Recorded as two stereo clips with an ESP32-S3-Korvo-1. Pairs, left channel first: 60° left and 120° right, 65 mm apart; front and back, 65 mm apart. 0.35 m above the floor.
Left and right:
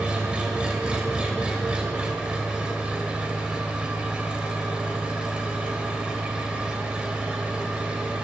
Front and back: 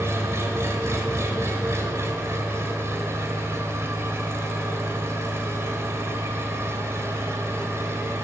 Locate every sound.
0.0 s an engine running: 175° left, 1.3 m